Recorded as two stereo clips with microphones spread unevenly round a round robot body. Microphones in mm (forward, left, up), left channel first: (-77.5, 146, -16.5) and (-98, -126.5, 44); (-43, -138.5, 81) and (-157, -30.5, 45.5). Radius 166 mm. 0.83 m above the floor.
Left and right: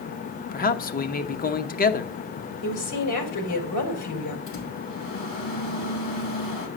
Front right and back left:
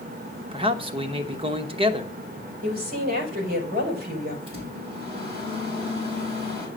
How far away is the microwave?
About 4.5 m.